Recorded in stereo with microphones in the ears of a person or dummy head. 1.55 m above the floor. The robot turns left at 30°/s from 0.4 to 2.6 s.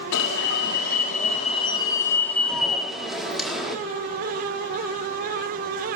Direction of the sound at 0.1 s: 65° left.